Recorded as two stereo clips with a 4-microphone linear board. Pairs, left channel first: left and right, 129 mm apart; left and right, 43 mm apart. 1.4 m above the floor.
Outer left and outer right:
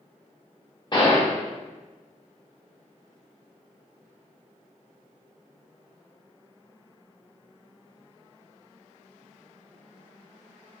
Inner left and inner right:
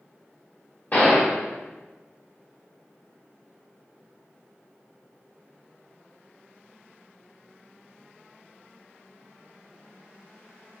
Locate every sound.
0.9 s a gunshot: 35° left (ahead or behind), 1.4 m